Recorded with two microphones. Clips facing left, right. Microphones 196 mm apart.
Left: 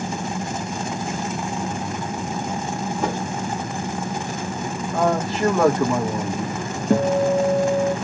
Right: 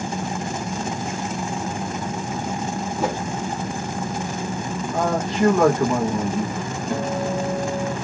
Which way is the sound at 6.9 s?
40° left (ahead or behind).